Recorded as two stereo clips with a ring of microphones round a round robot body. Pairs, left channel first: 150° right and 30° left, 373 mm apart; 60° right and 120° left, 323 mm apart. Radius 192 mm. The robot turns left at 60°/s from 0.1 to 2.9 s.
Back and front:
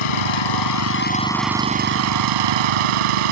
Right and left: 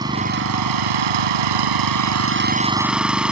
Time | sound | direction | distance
0.0 | an engine running | 160° right | ?